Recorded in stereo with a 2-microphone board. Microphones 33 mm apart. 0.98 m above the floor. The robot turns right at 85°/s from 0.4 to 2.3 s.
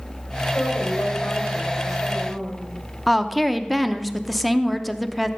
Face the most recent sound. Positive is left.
turn(degrees=0)  # may be behind; listen again after turning